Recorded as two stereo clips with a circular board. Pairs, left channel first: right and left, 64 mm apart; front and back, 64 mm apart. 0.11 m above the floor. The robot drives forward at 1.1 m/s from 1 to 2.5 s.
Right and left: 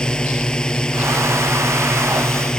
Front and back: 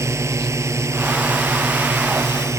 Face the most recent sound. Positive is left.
turn(degrees=-165)